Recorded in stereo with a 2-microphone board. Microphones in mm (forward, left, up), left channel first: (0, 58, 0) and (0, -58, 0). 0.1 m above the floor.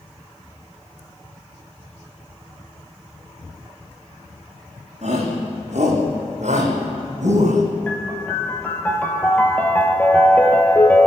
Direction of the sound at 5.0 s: 70° right (ahead or behind).